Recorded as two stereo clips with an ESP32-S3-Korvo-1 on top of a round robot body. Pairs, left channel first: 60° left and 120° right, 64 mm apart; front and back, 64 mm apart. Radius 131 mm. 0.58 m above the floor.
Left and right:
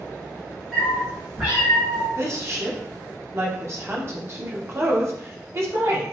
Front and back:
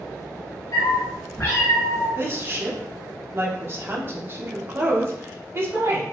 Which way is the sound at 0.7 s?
50° right.